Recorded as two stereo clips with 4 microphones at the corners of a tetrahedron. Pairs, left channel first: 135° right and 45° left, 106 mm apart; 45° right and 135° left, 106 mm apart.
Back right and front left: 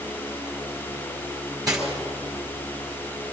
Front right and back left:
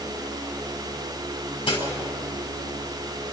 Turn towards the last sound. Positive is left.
turn(degrees=-10)